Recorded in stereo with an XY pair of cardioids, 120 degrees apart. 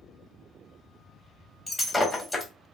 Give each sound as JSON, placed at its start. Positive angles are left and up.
{"t": 1.7, "sound": "breaking glass", "azimuth_deg": 20, "distance_m": 1.2}